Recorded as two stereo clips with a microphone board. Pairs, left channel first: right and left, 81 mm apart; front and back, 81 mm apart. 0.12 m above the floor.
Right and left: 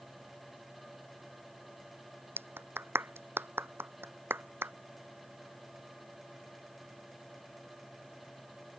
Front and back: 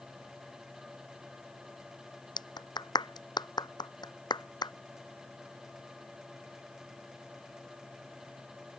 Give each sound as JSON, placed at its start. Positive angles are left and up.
{"t": 2.4, "sound": "a clap", "azimuth_deg": 30}